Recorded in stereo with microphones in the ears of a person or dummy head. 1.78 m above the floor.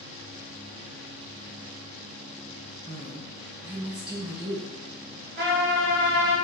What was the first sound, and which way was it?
A woman speaking, 20° right (ahead or behind).